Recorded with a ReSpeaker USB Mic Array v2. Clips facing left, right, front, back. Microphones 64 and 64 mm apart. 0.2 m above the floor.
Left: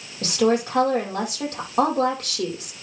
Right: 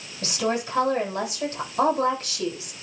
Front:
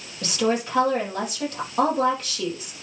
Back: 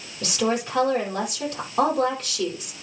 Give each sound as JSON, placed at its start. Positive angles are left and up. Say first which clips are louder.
{"t": 0.2, "sound": "a woman speaking", "louder": "left 6 dB, front 1 dB", "azimuth_deg": 90, "distance_m": 6.0}